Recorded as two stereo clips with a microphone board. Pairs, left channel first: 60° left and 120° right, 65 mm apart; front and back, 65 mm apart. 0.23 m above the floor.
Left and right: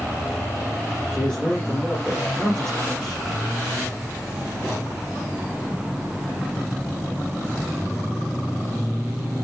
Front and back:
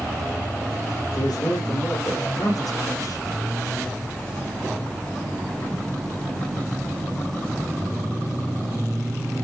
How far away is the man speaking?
About 4.5 m.